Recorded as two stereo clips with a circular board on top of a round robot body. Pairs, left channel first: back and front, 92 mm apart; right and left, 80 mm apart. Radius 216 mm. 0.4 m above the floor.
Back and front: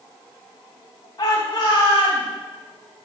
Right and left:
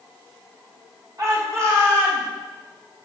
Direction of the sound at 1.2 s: 135° left.